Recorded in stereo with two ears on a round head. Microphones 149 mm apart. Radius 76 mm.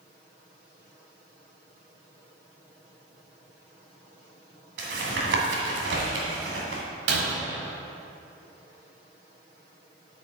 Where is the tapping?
80° right, 2 m.